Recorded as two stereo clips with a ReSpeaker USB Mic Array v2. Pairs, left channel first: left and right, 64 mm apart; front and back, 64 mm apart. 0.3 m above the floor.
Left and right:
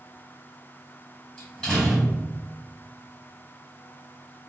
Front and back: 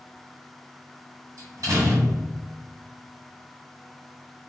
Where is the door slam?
175° left, 1.4 m.